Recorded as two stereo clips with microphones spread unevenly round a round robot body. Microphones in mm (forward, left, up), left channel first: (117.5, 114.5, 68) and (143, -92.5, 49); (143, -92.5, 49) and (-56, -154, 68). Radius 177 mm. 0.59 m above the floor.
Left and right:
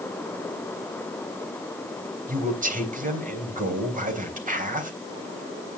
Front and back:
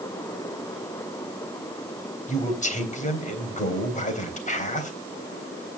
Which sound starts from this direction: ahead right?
A man speaking, at 2.3 s.